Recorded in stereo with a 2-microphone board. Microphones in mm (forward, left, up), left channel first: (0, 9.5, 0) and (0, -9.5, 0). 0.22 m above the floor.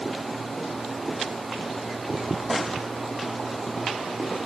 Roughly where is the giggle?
No giggle in this recording.